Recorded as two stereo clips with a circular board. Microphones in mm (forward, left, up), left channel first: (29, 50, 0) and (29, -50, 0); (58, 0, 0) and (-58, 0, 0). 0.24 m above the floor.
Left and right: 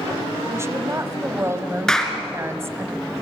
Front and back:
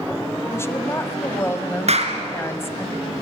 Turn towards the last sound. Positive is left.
turn(degrees=175)